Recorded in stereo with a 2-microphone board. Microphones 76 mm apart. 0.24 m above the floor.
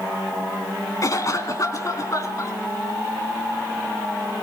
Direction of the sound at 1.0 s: 45° left (ahead or behind).